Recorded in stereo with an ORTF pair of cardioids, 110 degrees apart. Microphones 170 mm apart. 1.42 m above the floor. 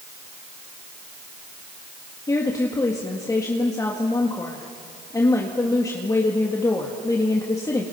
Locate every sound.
2.3 s a woman speaking: 20° left, 1.9 m